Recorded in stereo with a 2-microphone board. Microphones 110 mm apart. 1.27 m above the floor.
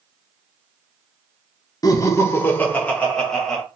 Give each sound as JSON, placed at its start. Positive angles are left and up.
{"t": 1.8, "sound": "laughter", "side_deg": 35, "distance_m": 0.6}